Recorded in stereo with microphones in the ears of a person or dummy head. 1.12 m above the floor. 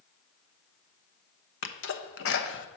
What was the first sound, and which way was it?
A sneeze, 60° left (ahead or behind).